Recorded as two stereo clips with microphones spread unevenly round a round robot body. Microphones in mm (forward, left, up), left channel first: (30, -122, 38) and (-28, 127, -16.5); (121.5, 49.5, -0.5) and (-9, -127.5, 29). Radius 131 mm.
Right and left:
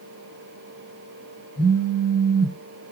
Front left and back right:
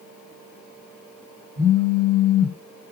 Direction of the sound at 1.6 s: 130° right.